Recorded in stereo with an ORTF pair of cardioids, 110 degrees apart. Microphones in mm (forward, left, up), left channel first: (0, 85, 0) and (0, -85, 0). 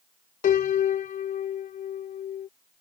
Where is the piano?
55° left.